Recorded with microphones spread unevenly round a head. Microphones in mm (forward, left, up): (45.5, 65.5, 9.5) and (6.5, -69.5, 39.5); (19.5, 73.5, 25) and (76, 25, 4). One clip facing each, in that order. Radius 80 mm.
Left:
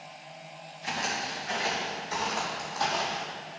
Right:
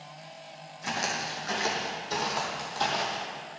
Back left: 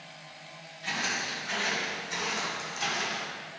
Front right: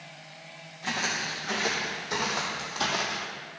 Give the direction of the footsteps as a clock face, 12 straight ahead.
3 o'clock.